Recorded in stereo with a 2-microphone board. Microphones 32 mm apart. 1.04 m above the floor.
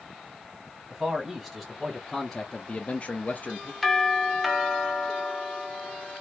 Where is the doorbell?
Centre (ahead or behind), 1.1 m.